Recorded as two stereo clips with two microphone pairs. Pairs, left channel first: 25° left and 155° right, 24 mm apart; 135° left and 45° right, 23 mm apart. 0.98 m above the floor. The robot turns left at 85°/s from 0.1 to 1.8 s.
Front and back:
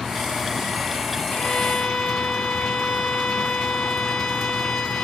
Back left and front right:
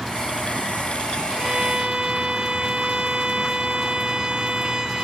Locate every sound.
1.3 s a violin: 30° left, 2.5 m; by 5.0 s 10° right, 2.5 m